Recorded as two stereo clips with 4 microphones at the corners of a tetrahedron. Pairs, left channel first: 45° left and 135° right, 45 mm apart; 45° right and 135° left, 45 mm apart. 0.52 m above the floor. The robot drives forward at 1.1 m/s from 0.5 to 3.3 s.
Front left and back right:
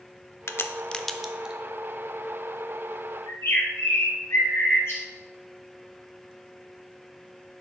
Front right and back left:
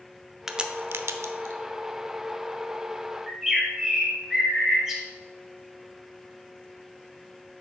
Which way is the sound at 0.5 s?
55° left.